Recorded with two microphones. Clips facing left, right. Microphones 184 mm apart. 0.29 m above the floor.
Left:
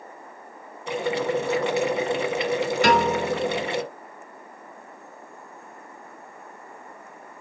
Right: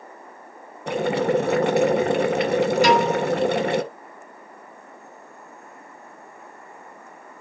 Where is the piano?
60° left (ahead or behind), 3.5 m.